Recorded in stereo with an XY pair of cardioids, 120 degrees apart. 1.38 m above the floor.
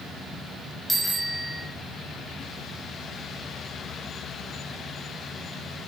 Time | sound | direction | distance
0.9 | a bicycle bell | 5° left | 6 m